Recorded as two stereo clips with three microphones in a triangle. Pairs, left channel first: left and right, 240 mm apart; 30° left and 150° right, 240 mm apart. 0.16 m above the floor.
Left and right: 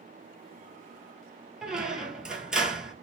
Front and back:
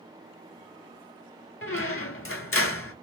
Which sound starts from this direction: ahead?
A squeak, at 1.6 s.